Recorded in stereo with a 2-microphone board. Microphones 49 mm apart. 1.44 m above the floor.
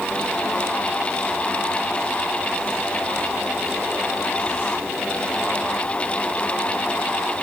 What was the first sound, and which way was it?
Only background noise.